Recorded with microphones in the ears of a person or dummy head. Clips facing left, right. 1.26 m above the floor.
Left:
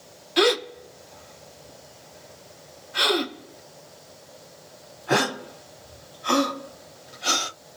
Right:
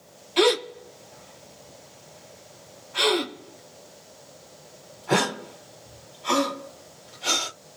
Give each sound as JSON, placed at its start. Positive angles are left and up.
{"t": 0.4, "sound": "a gasp", "side_deg": 10, "distance_m": 1.7}